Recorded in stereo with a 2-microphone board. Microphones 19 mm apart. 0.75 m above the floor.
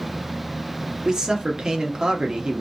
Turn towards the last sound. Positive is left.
turn(degrees=-40)  # may be behind; listen again after turning